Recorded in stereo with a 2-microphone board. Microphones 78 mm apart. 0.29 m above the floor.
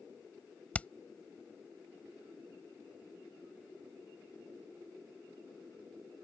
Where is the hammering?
20° left (ahead or behind).